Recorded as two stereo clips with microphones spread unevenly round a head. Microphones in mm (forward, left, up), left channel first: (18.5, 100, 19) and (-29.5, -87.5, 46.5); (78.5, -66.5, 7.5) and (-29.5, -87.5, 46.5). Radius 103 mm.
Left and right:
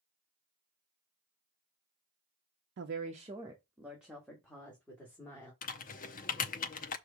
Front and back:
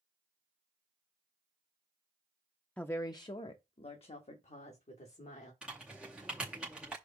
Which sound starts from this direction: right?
A woman speaking, at 2.8 s.